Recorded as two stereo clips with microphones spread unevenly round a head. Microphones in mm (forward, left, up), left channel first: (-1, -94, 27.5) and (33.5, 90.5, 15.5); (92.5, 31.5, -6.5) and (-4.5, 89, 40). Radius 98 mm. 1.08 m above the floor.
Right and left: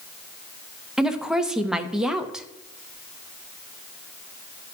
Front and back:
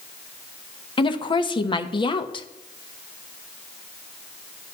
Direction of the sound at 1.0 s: 5° right.